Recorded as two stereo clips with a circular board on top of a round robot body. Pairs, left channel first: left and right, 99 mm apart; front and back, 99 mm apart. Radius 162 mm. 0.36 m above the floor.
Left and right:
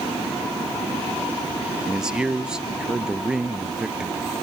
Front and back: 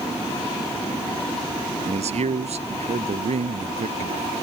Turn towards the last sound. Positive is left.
turn(degrees=-170)